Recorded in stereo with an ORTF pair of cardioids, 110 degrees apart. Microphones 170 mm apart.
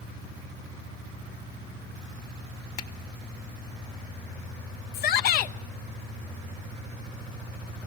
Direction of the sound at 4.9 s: 65° left.